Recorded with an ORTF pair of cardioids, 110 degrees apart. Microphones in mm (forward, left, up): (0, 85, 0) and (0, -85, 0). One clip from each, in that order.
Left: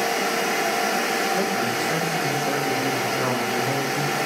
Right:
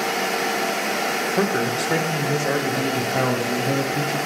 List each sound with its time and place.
1.4 s a man speaking: 45° right, 1.6 m; by 4.2 s 40° right, 3.5 m